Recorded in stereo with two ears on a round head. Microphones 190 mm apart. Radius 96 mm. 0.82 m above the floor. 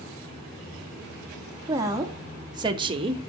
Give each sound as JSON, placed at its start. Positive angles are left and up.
{"t": 1.7, "sound": "a woman speaking", "side_deg": -15, "distance_m": 1.9}